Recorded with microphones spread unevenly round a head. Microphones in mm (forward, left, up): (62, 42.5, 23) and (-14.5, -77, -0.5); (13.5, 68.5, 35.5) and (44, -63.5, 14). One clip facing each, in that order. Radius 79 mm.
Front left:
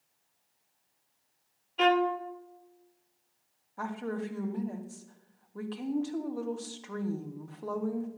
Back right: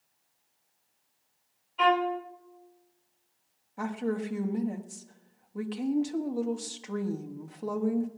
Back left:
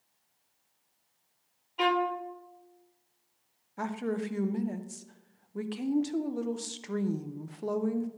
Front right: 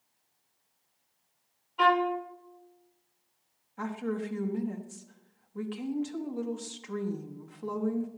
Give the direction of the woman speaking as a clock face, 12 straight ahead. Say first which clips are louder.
Back right 4 dB, back left 1 dB; 7 o'clock.